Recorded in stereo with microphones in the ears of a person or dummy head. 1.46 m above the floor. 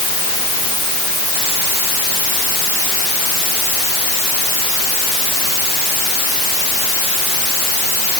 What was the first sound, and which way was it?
Only background noise.